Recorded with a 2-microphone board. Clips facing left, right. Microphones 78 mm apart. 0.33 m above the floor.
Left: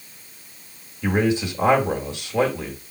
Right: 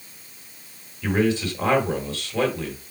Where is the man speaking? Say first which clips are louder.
Left 1 dB; 20° left (ahead or behind), 1.4 m.